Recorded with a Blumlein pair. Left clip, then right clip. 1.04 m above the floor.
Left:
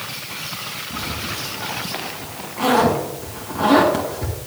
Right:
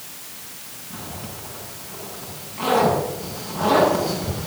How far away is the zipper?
About 5.5 m.